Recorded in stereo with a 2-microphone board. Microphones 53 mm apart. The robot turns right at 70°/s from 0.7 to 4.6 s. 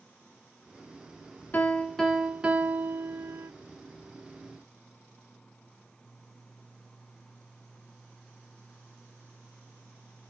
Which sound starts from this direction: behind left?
A piano, at 1.5 s.